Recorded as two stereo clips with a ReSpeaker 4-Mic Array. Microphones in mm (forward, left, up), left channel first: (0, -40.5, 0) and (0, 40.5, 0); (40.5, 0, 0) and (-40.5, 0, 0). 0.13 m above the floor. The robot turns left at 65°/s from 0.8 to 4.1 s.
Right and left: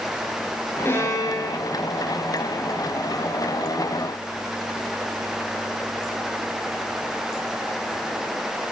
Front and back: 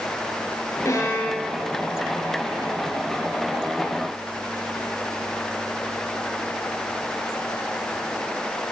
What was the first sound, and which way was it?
A violin, 35° right.